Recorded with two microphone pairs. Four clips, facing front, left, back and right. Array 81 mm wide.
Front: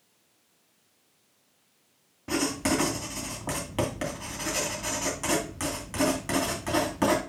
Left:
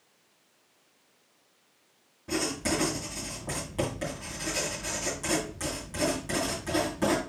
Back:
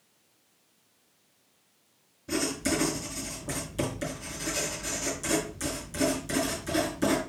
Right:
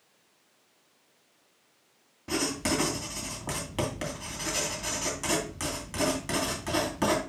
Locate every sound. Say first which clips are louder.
2.3 s writing: even, front 2 dB; 25° right, 2.5 m